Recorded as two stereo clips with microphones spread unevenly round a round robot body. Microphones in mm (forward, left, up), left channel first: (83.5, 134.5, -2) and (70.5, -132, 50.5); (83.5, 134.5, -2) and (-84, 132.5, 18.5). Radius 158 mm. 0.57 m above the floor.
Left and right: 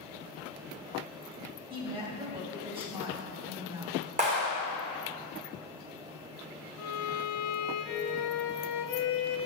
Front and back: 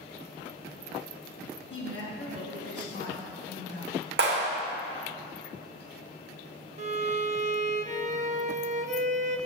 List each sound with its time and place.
1.7 s a woman speaking: 20° right, 3 m
4.2 s a clap: 165° right, 1.5 m
6.8 s a violin: 130° left, 0.8 m